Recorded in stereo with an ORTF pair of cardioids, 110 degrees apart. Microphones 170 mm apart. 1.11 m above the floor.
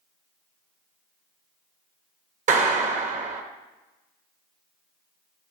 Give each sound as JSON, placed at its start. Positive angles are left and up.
{"t": 2.5, "sound": "a clap", "azimuth_deg": -50, "distance_m": 0.8}